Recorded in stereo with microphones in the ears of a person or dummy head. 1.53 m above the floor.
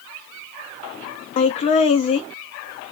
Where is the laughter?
30° left (ahead or behind), 0.5 m.